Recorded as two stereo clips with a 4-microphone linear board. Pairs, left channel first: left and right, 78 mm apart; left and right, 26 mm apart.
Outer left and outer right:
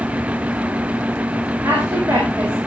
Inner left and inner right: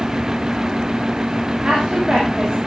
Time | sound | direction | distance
1.6 | a woman speaking | 25° right (ahead or behind) | 7 m